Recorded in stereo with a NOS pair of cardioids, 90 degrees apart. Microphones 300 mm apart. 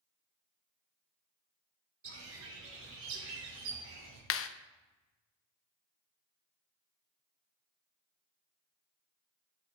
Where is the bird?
45° right, 4.5 m.